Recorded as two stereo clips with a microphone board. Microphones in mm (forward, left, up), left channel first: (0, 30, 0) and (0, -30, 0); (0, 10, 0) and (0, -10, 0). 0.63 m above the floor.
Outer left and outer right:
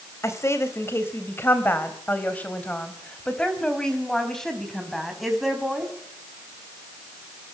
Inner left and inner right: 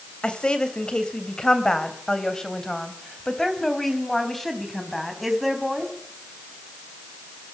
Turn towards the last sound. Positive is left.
turn(degrees=0)  # may be behind; listen again after turning